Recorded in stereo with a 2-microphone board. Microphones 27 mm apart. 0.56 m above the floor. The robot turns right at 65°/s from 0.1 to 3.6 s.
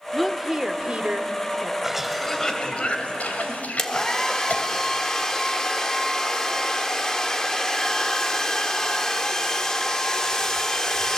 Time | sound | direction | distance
0.1 | a woman speaking | straight behind | 1.3 m
1.8 | a cough | 15° right (ahead or behind) | 2.5 m
3.8 | a hair dryer | 20° left (ahead or behind) | 1.3 m